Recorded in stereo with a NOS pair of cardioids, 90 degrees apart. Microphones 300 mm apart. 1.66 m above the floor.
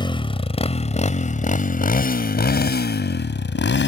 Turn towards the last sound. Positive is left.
turn(degrees=40)